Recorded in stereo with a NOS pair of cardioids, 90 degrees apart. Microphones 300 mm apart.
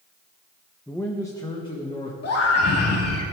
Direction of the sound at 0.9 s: Straight ahead.